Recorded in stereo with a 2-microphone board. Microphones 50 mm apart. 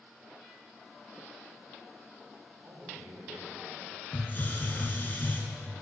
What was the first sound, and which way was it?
A man speaking, 50° right (ahead or behind).